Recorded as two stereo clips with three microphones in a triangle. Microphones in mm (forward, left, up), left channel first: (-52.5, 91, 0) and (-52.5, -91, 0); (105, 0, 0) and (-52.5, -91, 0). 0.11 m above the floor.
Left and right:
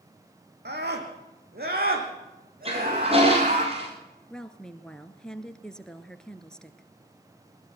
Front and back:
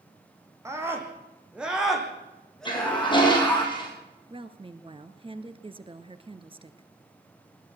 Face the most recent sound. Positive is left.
turn(degrees=175)